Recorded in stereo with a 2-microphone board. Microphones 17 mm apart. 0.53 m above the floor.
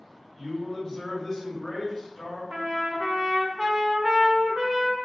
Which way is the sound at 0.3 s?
35° left (ahead or behind).